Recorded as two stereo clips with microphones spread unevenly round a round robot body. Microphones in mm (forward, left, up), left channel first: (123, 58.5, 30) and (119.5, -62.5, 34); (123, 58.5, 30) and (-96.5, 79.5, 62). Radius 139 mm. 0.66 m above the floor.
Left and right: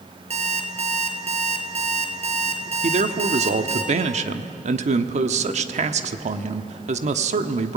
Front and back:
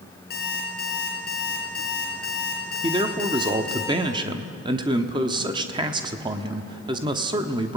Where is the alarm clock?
65° right, 5 m.